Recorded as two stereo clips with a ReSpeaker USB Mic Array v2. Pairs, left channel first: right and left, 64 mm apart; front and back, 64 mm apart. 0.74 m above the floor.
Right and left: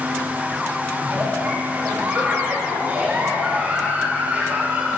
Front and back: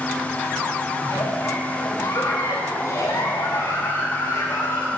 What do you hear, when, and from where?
1.0 s a giggle: 25° left, 3 m